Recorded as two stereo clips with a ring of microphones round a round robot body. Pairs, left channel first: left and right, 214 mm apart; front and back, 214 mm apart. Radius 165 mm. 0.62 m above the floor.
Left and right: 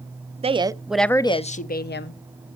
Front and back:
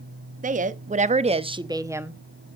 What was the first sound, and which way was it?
A woman speaking, 145° right.